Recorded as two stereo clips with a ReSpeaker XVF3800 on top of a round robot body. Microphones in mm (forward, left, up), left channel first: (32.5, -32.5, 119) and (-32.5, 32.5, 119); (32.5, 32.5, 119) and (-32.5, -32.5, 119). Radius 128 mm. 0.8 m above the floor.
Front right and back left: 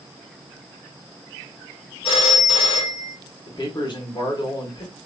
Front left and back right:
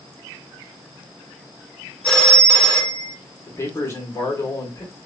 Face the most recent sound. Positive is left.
turn(degrees=-15)